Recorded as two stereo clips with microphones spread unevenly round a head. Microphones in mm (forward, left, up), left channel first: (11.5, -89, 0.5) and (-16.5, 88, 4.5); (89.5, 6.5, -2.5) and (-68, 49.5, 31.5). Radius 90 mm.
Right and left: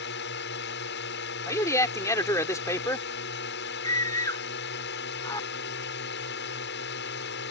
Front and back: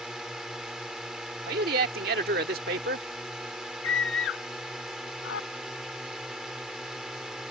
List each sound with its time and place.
0.0 s a drone: 110° right
1.5 s a man speaking: 155° right
3.8 s a scream: 5° right